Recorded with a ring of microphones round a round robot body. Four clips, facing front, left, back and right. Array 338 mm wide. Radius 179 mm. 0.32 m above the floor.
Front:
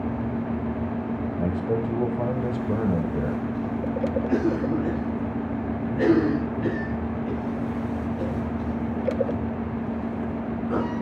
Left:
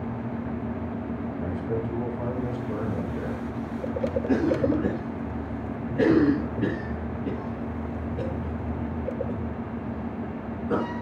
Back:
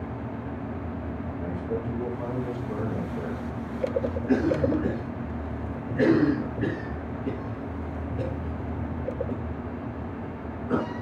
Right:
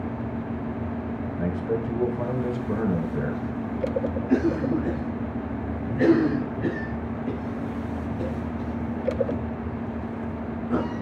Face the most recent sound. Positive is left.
turn(degrees=110)